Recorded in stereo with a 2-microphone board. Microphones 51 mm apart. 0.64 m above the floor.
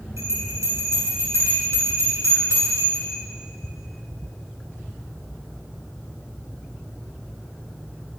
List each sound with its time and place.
0.2 s a bell: 80° right, 7 m